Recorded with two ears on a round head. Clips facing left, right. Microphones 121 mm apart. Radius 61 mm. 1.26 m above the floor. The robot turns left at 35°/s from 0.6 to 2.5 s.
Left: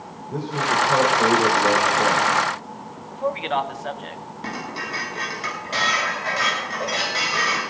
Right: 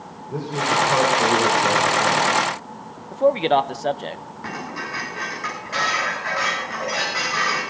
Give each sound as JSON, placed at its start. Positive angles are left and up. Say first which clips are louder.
{"t": 0.3, "sound": "a man speaking", "louder": "right 1 dB", "azimuth_deg": -170, "distance_m": 4.5}
{"t": 3.1, "sound": "a man speaking", "louder": "right 7 dB", "side_deg": -45, "distance_m": 0.7}
{"t": 4.4, "sound": "dishes clattering", "louder": "even", "side_deg": 35, "distance_m": 10.0}